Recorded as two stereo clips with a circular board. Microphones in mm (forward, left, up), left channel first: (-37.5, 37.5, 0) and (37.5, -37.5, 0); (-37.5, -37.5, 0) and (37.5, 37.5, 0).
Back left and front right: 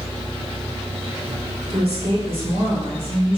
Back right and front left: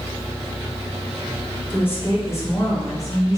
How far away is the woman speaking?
About 2 m.